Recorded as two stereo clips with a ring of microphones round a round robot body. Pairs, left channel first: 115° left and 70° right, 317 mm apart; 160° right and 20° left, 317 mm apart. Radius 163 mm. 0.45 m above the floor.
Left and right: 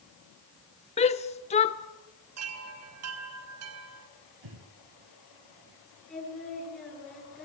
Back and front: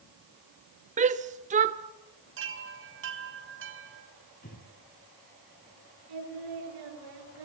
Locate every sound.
1.0 s a shout: 65° left, 0.8 m
2.4 s a chime: 30° right, 4 m
4.4 s breathing: 90° right, 5 m
6.1 s singing: 25° left, 9 m